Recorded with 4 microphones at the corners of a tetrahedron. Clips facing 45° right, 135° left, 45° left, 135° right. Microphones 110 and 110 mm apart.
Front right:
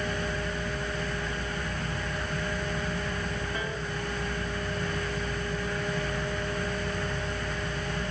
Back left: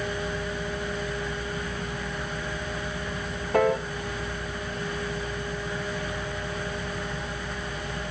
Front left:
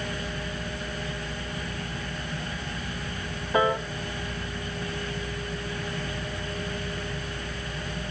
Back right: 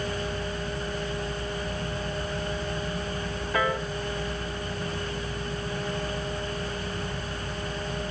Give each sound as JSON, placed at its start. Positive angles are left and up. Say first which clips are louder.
{"t": 3.5, "sound": "a piano", "louder": "back left 12 dB, front left 4 dB", "azimuth_deg": 115, "distance_m": 0.6}